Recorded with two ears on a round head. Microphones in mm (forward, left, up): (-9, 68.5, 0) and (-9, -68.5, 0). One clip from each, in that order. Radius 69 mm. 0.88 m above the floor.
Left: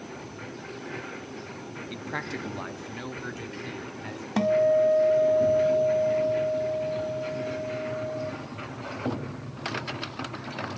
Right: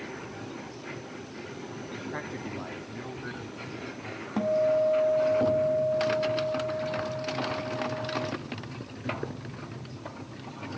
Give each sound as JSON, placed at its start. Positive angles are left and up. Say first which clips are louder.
{"t": 1.9, "sound": "a man speaking", "louder": "left 4 dB", "side_deg": 55, "distance_m": 1.5}
{"t": 4.4, "sound": "a guitar", "louder": "left 3 dB", "side_deg": 60, "distance_m": 0.7}